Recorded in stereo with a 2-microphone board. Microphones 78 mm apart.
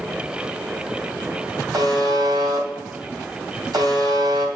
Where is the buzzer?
60° right (ahead or behind), 2 m.